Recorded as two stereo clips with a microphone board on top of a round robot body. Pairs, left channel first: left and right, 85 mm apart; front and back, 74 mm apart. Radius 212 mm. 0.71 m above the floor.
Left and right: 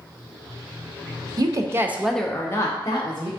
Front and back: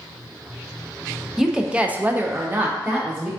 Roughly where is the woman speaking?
Right.